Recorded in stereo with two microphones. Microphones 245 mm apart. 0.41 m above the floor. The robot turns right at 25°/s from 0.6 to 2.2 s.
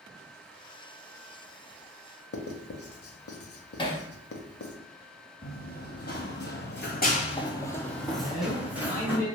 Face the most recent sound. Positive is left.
turn(degrees=-25)  # may be behind; listen again after turning